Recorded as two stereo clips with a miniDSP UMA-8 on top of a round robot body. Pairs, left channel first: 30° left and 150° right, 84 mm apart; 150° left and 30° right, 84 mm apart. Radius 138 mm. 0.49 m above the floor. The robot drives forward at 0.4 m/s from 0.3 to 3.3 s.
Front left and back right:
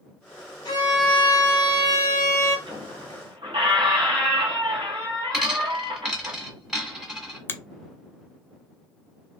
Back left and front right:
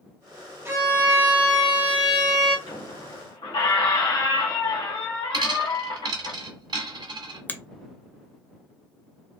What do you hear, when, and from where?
0.7 s a violin: 25° left, 1.8 m; by 2.6 s 50° left, 1.4 m
2.7 s a squeak: straight behind, 1.5 m
5.3 s a dropped coin: 65° right, 0.9 m
7.5 s a finger snap: 90° left, 0.7 m